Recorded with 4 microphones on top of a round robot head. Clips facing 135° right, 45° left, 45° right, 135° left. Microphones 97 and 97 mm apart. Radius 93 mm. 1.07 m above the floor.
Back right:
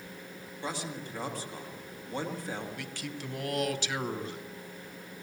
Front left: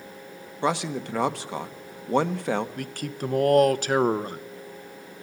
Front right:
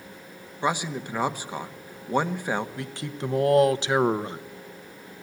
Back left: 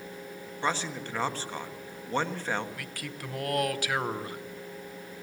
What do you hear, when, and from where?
0.6 s a man speaking: 30° left, 1.3 m
2.8 s a man speaking: 15° left, 1.0 m